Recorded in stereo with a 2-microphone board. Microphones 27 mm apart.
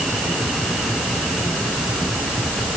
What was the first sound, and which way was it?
Only background noise.